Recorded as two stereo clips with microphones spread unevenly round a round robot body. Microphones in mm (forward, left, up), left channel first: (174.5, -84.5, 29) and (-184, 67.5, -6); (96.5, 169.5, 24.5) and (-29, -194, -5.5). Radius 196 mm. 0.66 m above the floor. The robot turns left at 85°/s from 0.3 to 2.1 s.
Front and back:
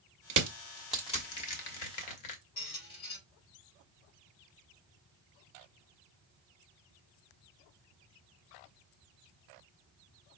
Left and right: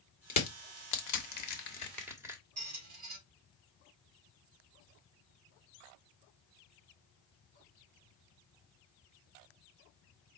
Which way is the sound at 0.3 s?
125° left.